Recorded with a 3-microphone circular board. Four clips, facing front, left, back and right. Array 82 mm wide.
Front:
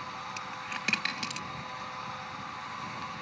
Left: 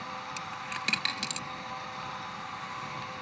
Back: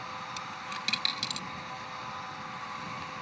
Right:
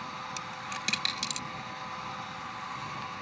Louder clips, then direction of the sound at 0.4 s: Left 1 dB, even; 25° left.